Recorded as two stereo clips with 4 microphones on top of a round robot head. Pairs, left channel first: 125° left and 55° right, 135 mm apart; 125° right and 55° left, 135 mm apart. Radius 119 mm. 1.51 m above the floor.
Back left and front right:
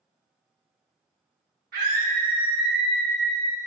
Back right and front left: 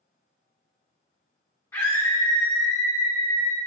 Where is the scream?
55° right, 0.9 m; by 3.6 s 110° right, 3 m.